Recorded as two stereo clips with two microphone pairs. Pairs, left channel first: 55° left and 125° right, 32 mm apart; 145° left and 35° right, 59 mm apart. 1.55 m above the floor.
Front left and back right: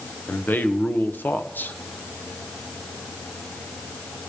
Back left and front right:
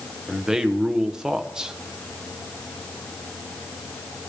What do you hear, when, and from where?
0.3 s a man speaking: 45° left, 1.0 m